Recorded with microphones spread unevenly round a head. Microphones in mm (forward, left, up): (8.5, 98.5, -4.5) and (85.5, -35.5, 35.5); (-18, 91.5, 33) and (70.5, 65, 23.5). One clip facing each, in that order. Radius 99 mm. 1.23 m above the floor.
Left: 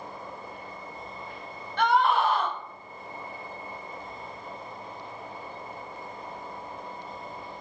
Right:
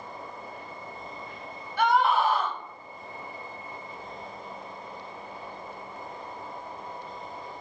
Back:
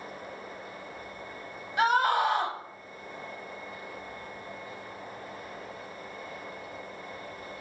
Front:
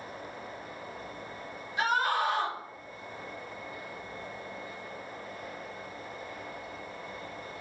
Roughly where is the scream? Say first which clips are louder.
Even, back 4 dB; behind right.